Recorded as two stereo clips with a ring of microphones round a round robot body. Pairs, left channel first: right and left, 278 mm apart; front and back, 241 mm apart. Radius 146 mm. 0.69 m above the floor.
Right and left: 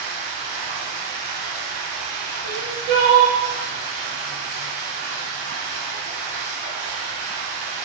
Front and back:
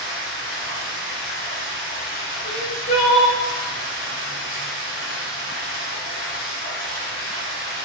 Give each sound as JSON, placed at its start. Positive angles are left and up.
{"t": 0.0, "sound": "running water", "azimuth_deg": 90, "distance_m": 1.4}
{"t": 2.4, "sound": "crying", "azimuth_deg": 45, "distance_m": 0.6}